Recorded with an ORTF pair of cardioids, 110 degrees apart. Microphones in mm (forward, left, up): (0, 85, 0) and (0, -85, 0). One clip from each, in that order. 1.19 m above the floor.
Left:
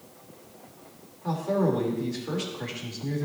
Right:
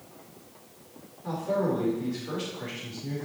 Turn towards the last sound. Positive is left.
turn(degrees=30)